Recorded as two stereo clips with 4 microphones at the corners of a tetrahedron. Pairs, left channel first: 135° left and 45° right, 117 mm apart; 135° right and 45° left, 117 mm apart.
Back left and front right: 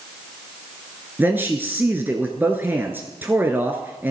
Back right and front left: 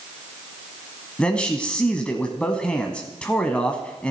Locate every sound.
1.2 s a man speaking: 70° right, 1.1 m